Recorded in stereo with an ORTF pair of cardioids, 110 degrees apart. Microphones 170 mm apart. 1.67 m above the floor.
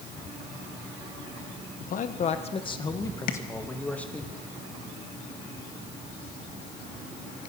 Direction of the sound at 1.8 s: 55° left.